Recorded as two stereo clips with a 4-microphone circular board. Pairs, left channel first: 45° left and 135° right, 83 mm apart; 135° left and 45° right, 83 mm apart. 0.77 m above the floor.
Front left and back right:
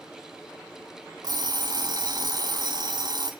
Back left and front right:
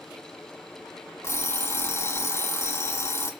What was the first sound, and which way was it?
An alarm clock, 170° right.